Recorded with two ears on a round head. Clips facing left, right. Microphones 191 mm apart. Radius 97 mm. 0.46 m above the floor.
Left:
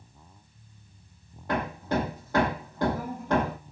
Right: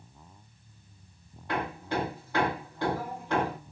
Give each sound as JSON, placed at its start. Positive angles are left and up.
{"t": 1.5, "sound": "hammering", "side_deg": 40, "distance_m": 9.0}